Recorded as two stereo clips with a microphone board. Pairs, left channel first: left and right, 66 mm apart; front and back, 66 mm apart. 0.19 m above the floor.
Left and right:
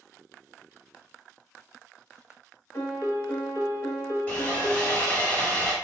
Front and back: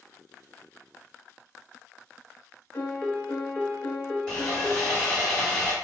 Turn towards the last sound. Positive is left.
turn(degrees=55)